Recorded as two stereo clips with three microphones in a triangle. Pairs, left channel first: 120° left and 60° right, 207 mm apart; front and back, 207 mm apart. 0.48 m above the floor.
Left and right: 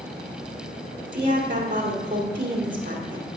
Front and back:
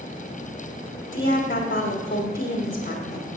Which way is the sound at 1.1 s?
25° right.